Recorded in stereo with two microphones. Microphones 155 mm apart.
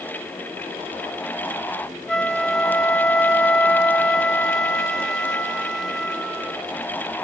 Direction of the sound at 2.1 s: 5° left (ahead or behind).